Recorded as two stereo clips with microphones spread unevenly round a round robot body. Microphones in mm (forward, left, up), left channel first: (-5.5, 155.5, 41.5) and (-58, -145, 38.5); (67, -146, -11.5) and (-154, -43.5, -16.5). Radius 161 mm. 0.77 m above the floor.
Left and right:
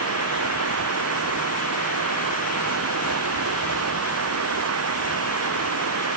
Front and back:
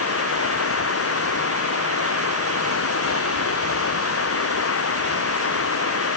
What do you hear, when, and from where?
0.0 s running water: 50° right